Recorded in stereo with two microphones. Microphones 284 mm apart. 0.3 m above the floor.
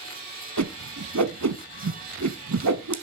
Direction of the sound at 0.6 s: 75° right (ahead or behind).